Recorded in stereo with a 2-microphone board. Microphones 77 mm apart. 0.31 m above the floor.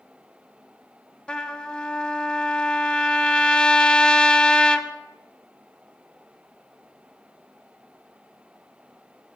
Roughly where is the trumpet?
Centre.